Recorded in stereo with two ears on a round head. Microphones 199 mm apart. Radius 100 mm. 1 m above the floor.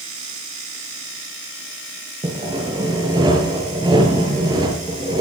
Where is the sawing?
20° right (ahead or behind), 6.5 m.